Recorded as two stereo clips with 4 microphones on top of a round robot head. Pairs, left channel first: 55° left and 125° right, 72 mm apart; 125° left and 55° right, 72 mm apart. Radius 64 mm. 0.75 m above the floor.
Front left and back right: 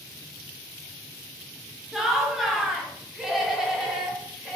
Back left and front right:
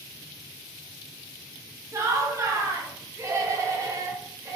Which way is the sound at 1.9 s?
40° right.